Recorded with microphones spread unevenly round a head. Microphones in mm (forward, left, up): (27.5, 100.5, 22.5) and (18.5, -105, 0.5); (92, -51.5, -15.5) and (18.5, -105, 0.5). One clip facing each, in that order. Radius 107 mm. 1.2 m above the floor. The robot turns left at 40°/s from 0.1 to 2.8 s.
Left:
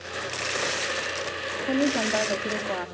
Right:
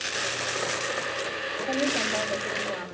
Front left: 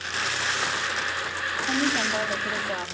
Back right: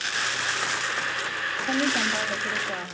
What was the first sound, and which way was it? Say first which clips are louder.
A woman speaking: left 4 dB, even; 165° left.